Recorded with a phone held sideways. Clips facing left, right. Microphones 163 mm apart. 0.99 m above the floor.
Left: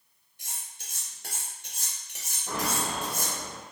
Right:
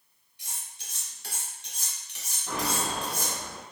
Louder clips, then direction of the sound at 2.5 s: Even; 10° left (ahead or behind).